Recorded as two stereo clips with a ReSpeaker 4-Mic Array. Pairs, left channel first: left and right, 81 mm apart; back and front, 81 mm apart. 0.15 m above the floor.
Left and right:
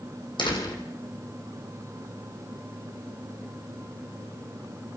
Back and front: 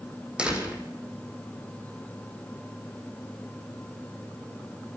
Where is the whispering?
I don't hear whispering.